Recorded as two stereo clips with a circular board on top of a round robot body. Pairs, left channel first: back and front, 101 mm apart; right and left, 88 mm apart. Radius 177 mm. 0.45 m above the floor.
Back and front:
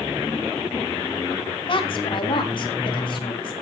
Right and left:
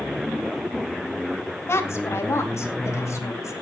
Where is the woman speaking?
150° right, 3 m; by 3.5 s 145° right, 4 m.